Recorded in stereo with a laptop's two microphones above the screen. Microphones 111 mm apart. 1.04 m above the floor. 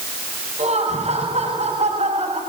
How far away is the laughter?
About 5.5 m.